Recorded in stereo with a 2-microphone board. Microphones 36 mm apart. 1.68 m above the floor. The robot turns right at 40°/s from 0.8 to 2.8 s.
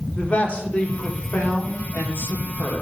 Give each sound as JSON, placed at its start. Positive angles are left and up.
{"t": 0.1, "sound": "a man speaking", "azimuth_deg": 35, "distance_m": 1.4}